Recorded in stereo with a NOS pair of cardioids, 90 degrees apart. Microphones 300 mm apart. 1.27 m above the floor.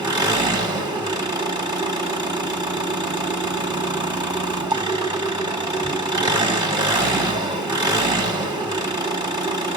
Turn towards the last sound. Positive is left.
turn(degrees=-15)